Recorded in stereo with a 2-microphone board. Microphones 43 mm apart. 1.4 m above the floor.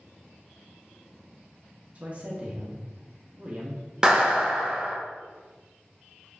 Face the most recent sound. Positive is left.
turn(degrees=-15)  # may be behind; listen again after turning